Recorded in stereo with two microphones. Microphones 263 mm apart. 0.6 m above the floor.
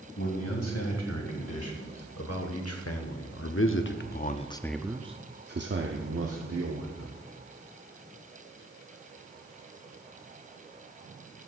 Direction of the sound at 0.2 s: 75° left (ahead or behind).